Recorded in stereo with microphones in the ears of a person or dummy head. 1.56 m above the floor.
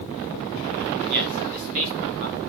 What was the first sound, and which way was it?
A man speaking, 50° right (ahead or behind).